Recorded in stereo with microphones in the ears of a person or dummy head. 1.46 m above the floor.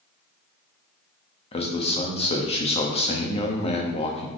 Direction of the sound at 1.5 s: 30° left (ahead or behind).